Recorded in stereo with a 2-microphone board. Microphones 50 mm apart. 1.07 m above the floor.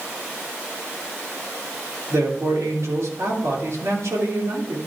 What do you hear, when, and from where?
2.1 s a man speaking: 75° right (ahead or behind), 2.5 m